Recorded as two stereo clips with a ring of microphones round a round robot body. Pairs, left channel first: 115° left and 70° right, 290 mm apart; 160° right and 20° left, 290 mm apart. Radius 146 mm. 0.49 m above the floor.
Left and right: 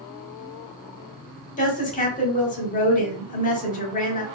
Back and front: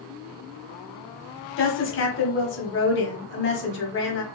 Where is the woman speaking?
170° left, 1.1 m.